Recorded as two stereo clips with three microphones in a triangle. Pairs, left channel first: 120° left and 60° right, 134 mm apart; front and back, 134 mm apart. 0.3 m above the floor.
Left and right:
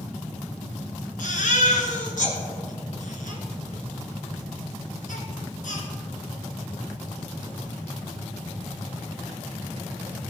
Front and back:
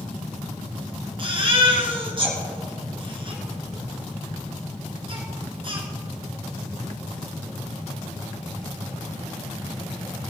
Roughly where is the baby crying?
Behind left.